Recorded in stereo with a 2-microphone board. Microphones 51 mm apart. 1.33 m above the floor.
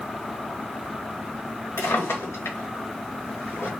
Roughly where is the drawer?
Left.